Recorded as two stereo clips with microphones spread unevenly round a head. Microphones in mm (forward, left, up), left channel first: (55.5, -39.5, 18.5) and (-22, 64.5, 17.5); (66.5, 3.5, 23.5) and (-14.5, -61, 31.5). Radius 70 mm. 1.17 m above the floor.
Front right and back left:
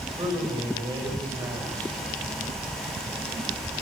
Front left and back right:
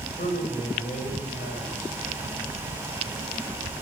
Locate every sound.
0.2 s a man speaking: 65° left, 5.5 m